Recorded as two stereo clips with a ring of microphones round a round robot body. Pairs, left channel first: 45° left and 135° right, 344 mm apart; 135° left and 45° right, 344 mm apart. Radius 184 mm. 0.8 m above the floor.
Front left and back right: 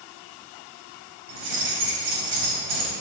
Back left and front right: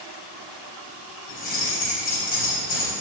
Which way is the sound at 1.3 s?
160° right.